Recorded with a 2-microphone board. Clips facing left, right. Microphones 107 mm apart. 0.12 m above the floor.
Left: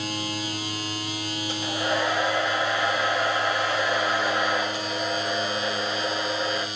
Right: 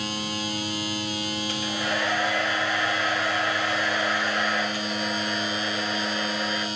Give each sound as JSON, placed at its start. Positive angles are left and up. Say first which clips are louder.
{"t": 1.5, "sound": "a hair dryer", "louder": "left 4 dB", "side_deg": 20, "distance_m": 4.0}